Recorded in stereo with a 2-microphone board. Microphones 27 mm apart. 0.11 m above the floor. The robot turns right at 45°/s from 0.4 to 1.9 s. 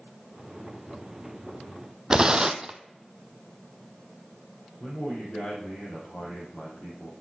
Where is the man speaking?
50° left (ahead or behind), 5 m.